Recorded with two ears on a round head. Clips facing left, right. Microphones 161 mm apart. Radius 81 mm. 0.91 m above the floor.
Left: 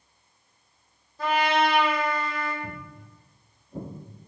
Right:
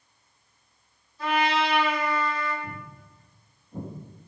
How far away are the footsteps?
About 1.0 m.